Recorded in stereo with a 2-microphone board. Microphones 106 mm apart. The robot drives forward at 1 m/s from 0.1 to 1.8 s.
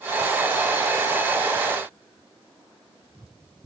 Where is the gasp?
No gasp in this recording.